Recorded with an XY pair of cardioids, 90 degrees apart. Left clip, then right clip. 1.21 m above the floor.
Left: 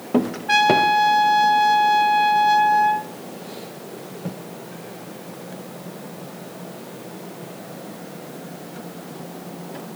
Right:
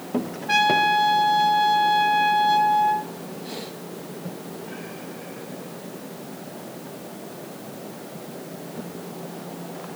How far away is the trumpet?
About 1.5 m.